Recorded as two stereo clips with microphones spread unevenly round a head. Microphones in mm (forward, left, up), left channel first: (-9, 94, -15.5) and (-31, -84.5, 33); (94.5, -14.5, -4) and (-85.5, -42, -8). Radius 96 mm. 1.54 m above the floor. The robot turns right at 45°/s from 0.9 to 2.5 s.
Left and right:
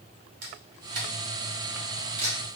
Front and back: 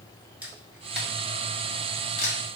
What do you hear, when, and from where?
0.4 s a camera shutter: 90° right, 0.8 m; by 2.4 s 20° right, 0.8 m